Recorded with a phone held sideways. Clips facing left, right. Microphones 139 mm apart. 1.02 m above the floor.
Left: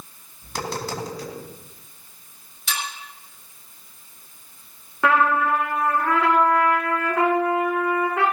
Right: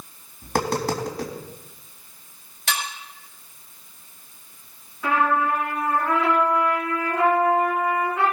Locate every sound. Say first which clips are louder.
0.4 s tapping: right 6 dB; 55° right (ahead or behind), 3.5 m
2.7 s dishes clattering: right 2 dB; 65° right (ahead or behind), 4 m
5.0 s a trumpet: left 2 dB; 80° left, 3.5 m